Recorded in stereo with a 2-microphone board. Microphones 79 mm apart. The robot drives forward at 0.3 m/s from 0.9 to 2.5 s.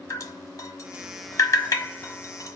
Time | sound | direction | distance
0.1 | dripping | 45° left (ahead or behind) | 1.2 m